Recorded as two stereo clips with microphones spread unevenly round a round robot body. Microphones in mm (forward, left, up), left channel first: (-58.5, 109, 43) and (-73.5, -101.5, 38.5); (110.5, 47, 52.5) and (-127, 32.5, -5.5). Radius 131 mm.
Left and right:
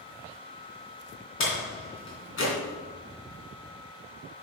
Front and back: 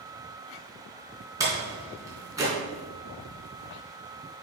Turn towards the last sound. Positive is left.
turn(degrees=110)